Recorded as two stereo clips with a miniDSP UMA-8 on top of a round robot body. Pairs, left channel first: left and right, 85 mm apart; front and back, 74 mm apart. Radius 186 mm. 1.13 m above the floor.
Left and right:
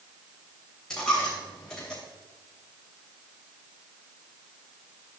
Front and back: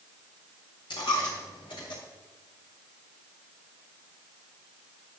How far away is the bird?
I don't hear a bird.